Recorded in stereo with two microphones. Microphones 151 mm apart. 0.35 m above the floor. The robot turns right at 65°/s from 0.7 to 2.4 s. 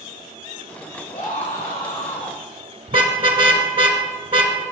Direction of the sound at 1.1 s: 60° left.